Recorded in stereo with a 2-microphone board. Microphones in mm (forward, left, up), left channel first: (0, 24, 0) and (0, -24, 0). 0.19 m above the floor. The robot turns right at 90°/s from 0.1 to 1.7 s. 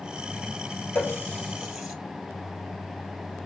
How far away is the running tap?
About 2 m.